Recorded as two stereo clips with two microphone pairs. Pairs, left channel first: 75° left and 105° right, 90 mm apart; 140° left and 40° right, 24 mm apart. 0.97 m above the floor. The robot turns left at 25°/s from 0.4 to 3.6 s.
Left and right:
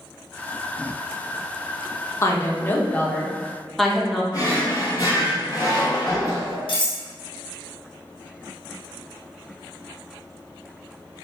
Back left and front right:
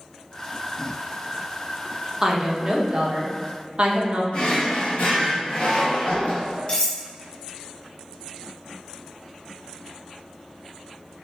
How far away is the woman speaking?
About 0.6 m.